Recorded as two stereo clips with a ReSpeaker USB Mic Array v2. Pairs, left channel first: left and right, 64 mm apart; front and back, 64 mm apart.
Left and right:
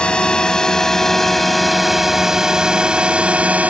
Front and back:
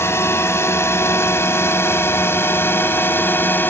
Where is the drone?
25° left; by 3.7 s 35° right.